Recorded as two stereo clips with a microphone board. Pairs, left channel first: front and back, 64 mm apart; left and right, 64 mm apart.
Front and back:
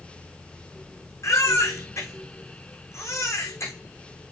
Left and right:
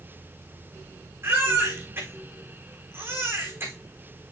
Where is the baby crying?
40° right, 4.5 m.